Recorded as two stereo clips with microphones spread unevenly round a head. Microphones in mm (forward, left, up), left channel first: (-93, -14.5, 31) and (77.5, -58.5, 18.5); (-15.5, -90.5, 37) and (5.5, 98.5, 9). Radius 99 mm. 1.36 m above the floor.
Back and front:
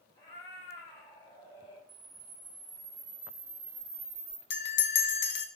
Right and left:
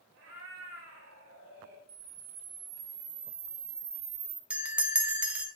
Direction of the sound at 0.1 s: 110° left.